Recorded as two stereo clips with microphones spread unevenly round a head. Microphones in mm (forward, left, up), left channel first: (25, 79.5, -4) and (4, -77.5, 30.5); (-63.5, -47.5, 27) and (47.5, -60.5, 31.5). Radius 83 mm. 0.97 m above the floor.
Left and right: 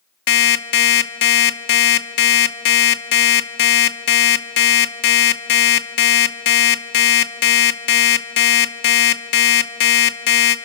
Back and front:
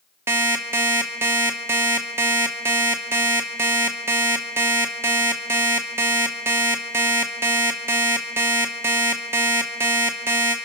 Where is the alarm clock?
70° left, 1.0 m.